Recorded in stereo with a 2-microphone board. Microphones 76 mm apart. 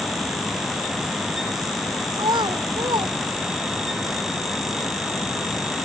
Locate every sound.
2.1 s a child speaking: 80° right; by 3.9 s 75° right (ahead or behind)